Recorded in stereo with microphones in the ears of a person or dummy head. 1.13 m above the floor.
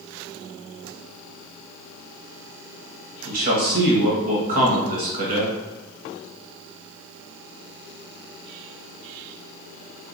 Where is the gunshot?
No gunshot in this recording.